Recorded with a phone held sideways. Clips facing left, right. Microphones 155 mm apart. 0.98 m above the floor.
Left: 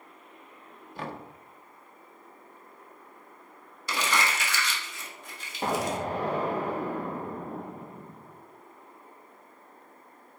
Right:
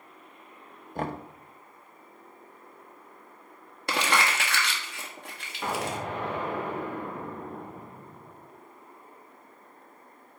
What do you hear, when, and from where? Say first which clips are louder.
0.9 s knocking: right 5 dB; 50° right (ahead or behind), 0.8 m
3.9 s crumpling: right 2 dB; 60° right (ahead or behind), 1.4 m
5.6 s an explosion: left 3 dB; 35° left (ahead or behind), 1.0 m